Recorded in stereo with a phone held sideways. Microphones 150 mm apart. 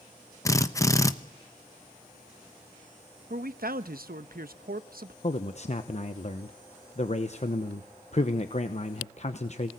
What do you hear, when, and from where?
0.5 s a drill: 20° left (ahead or behind), 0.8 m
3.3 s a man speaking: 75° right (ahead or behind), 0.9 m
5.2 s a man speaking: 50° left (ahead or behind), 0.9 m